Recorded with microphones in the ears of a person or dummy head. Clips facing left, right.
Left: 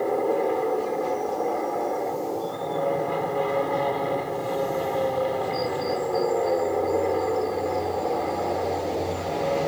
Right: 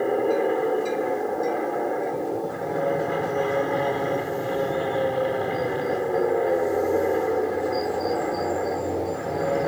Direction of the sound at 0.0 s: 15° right (ahead or behind).